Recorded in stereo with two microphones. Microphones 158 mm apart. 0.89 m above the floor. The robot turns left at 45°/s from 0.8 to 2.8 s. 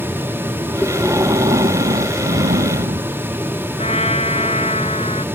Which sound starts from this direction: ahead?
Breathing, at 0.8 s.